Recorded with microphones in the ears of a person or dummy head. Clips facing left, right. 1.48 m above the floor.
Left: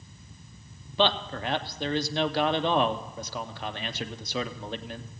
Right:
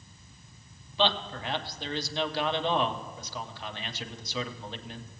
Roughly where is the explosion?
No explosion in this recording.